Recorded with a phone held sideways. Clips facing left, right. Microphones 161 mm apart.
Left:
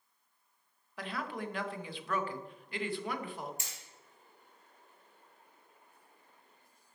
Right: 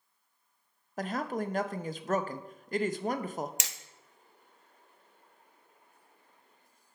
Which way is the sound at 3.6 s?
70° right (ahead or behind).